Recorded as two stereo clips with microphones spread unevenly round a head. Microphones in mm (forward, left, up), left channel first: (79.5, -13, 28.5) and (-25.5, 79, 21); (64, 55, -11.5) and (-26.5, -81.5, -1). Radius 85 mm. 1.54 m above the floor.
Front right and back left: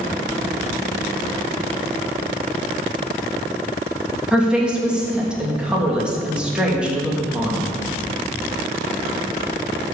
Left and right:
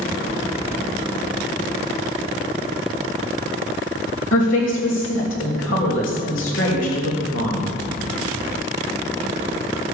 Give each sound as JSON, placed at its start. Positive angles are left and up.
{"t": 4.3, "sound": "a woman speaking", "azimuth_deg": 55, "distance_m": 3.0}